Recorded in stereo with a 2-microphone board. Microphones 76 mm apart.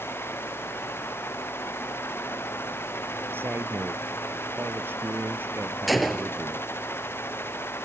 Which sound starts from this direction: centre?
A gunshot, at 5.9 s.